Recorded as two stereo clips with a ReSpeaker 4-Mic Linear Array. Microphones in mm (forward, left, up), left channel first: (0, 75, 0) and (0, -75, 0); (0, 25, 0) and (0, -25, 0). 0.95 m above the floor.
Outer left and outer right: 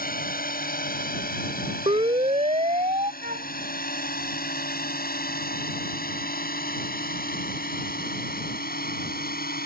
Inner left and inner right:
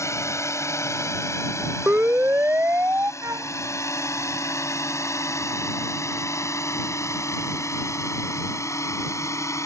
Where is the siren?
45° right (ahead or behind); by 3.1 s 50° right (ahead or behind).